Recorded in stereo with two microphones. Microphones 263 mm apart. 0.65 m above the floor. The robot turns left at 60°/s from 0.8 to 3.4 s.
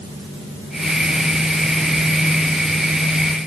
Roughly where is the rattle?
No rattle in this recording.